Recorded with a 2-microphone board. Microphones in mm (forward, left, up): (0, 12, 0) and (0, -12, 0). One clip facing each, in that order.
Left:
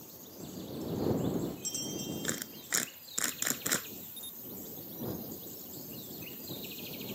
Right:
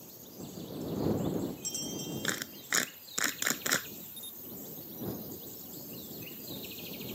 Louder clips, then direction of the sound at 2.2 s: Right 3 dB; 20° right (ahead or behind).